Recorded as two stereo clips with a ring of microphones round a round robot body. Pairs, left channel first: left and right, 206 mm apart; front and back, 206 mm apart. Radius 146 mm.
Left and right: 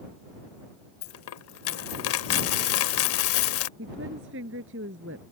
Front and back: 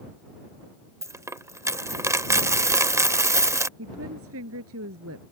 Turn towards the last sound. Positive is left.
turn(degrees=-140)